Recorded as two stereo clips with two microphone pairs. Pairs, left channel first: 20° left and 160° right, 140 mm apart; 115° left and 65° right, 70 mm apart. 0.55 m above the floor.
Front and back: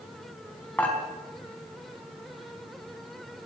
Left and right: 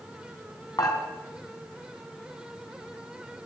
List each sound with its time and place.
0.8 s dishes clattering: 95° left, 3.5 m